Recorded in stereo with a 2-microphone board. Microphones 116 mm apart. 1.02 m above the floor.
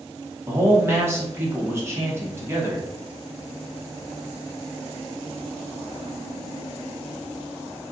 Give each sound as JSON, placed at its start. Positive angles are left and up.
{"t": 0.5, "sound": "a man speaking", "side_deg": -20, "distance_m": 1.2}